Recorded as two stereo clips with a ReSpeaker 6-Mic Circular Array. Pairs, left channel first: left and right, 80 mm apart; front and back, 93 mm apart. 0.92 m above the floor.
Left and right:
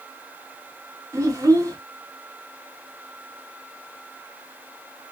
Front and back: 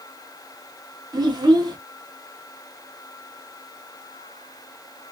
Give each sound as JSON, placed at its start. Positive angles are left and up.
{"t": 1.1, "sound": "a child speaking", "azimuth_deg": -135, "distance_m": 1.4}